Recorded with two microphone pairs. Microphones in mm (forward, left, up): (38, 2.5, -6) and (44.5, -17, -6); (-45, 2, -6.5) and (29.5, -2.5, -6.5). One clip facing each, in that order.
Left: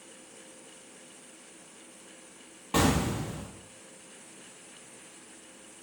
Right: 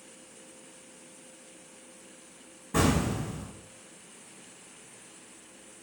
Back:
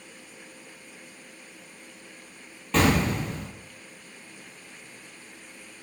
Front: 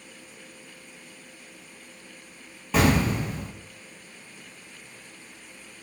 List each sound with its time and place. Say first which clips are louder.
2.7 s an explosion: even, even; 80° left, 1.1 m